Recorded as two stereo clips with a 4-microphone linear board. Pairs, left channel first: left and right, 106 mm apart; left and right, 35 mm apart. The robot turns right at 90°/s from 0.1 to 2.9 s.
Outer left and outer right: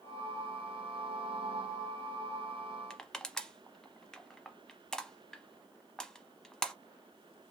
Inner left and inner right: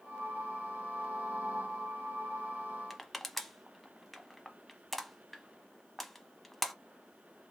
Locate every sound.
2.9 s crushing: 5° left (ahead or behind), 0.7 m